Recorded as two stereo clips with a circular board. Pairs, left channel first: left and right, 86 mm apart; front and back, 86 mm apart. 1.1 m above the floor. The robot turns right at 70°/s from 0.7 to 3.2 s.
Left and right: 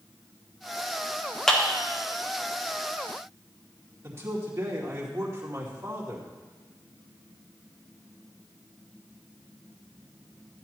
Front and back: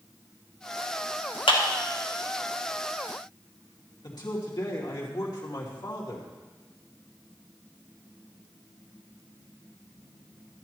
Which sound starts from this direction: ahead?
A clap, at 1.5 s.